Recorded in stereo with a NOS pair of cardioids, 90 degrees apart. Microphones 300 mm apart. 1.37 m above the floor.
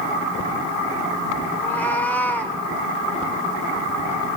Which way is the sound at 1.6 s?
5° left.